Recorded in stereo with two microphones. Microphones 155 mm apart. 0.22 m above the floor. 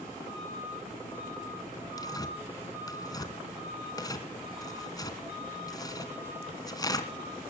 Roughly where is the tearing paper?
Left.